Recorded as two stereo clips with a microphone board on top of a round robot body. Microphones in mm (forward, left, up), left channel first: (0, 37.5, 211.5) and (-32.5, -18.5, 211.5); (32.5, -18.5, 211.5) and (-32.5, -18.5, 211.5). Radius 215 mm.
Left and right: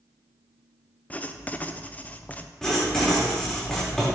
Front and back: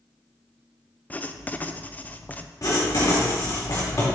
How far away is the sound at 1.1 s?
About 0.7 m.